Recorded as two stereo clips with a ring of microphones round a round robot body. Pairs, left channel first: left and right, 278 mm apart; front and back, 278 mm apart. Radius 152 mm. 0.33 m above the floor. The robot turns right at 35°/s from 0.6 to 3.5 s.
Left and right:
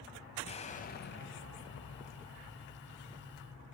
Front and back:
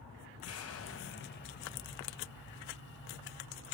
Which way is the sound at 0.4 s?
25° left.